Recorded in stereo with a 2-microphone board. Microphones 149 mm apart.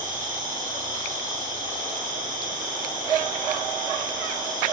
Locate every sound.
0.0 s an insect: 60° right (ahead or behind), 9 m